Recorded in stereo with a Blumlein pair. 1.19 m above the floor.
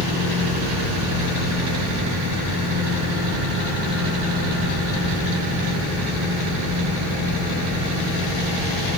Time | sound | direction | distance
0.0 | a fan | 50° left | 1.1 m